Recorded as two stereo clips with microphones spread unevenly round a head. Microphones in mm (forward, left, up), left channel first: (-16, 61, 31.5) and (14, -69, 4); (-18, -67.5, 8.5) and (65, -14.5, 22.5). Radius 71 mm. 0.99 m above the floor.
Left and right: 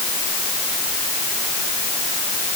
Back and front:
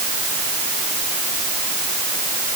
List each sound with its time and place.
Only background noise.